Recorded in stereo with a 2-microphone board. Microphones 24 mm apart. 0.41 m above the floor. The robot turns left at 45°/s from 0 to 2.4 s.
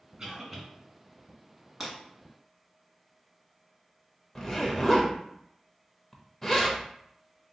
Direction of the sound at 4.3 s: 10° left (ahead or behind).